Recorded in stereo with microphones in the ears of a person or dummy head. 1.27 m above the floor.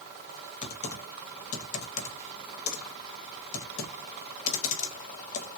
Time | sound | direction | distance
0.6 | typing on a keyboard | 40° left (ahead or behind) | 1.0 m